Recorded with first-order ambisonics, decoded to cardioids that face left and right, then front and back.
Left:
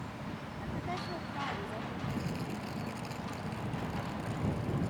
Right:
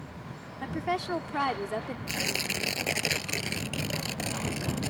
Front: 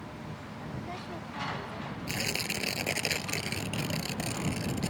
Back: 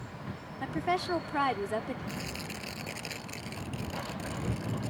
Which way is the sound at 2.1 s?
60° right.